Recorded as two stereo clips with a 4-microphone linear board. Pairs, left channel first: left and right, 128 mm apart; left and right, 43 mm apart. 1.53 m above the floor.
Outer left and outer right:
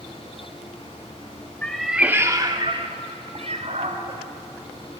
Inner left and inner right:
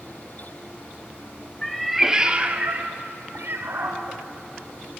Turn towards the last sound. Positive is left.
turn(degrees=-75)  # may be behind; listen again after turning